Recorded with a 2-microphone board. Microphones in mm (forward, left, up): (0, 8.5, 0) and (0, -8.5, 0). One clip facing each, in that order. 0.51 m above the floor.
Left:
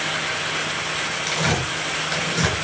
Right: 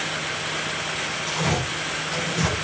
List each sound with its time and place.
1.3 s tearing paper: 65° left (ahead or behind), 3 m